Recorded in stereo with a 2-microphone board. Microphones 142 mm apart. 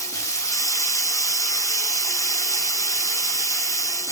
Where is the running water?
20° left (ahead or behind), 0.7 m.